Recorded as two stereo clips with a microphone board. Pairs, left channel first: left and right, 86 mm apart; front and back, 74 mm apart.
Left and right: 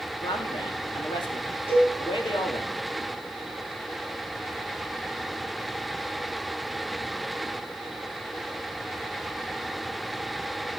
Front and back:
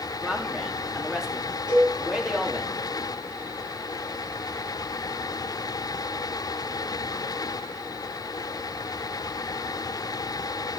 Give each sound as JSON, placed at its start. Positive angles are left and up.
{"t": 0.2, "sound": "a man speaking", "azimuth_deg": 95, "distance_m": 2.0}
{"t": 1.7, "sound": "a cowbell", "azimuth_deg": 155, "distance_m": 7.5}